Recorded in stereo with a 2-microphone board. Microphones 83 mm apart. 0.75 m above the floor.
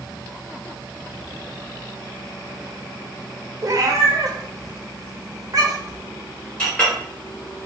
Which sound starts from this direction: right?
A cat meowing, at 3.6 s.